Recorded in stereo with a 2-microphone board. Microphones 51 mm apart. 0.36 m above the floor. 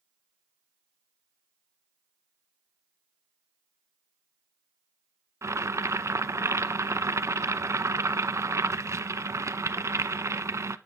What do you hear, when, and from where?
5.4 s boiling: 75° right (ahead or behind), 0.6 m